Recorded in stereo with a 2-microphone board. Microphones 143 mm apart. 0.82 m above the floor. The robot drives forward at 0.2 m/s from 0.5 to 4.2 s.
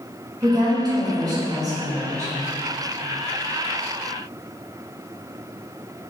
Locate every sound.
0.4 s a woman speaking: 30° right (ahead or behind), 0.9 m; by 2.3 s 25° right (ahead or behind), 1.1 m